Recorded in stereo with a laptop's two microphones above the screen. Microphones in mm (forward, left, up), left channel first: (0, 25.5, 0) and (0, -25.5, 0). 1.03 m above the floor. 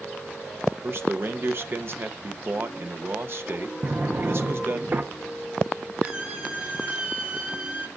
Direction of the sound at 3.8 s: 40° right (ahead or behind).